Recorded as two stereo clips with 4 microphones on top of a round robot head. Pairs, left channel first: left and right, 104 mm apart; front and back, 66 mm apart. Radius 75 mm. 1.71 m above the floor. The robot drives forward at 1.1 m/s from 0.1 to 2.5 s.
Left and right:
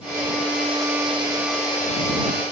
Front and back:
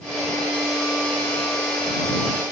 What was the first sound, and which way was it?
Only background noise.